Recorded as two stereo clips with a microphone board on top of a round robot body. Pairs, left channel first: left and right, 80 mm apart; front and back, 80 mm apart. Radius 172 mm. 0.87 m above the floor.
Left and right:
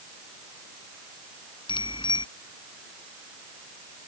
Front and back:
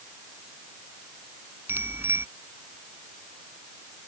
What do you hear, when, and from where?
1.7 s a bicycle bell: 115° left